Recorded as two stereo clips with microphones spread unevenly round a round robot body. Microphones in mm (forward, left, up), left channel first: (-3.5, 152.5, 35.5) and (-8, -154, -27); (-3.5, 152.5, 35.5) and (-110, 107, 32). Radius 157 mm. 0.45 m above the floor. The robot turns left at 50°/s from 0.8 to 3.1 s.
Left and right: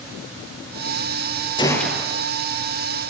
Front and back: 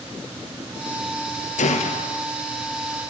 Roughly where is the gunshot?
Ahead.